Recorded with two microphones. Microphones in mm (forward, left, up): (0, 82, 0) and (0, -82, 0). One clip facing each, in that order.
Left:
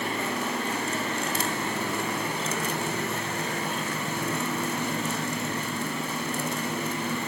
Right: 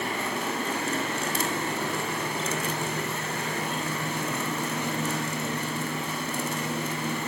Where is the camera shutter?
I don't hear a camera shutter.